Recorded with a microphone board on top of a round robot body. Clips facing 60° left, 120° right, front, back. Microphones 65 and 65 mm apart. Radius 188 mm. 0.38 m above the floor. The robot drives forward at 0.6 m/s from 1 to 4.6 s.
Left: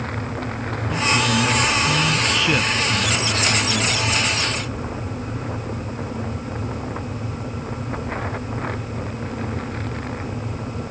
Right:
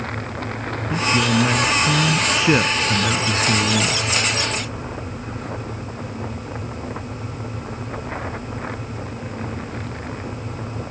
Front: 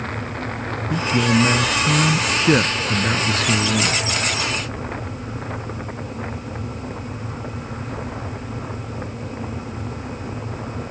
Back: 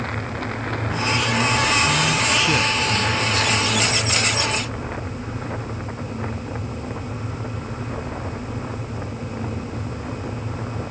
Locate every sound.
0.9 s a man speaking: 45° right; by 4.0 s 60° right